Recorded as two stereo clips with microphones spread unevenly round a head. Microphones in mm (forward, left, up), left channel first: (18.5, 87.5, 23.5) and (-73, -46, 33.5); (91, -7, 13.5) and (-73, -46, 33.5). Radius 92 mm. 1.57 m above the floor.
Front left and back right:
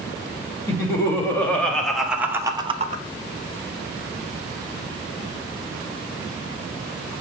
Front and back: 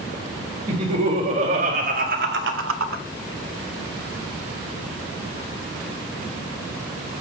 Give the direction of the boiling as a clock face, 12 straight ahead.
I don't hear boiling.